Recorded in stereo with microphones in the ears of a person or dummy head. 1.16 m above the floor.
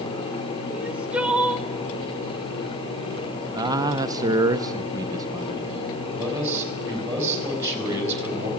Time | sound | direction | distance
0.7 | crying | 5° right (ahead or behind) | 0.9 m
3.5 | a man speaking | 20° right (ahead or behind) | 1.0 m
6.2 | a man speaking | 20° right (ahead or behind) | 5 m